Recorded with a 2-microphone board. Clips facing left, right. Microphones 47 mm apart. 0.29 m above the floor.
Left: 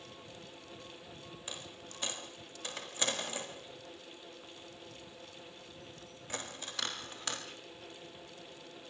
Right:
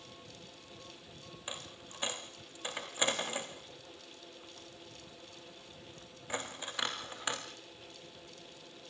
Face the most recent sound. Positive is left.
turn(degrees=-20)  # may be behind; listen again after turning